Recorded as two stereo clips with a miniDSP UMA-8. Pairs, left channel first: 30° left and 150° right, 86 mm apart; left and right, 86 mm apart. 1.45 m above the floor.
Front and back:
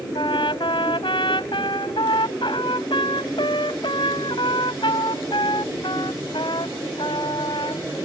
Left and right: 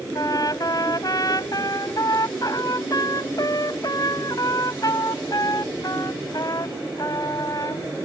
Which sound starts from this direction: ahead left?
A trumpet, at 0.1 s.